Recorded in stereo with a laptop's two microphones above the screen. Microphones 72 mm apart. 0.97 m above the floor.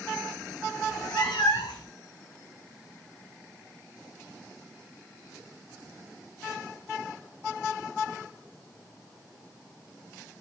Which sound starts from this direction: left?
A cat meowing, at 0.8 s.